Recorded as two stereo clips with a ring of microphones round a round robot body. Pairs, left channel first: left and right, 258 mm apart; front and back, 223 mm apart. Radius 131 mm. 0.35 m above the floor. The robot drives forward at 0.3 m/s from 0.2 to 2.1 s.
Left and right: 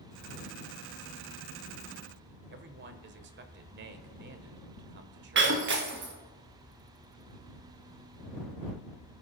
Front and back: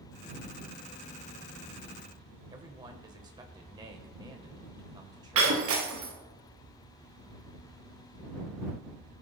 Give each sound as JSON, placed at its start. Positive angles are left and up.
{"t": 2.5, "sound": "a man speaking", "azimuth_deg": -115, "distance_m": 1.2}
{"t": 5.3, "sound": "breaking glass", "azimuth_deg": -140, "distance_m": 2.5}